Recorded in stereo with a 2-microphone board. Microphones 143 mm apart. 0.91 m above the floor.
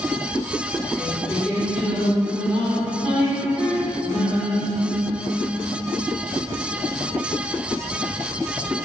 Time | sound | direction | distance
1.0 | singing | centre (ahead or behind) | 1.1 m